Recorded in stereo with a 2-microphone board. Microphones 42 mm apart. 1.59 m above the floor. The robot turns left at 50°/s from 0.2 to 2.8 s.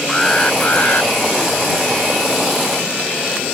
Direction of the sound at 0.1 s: 165° left.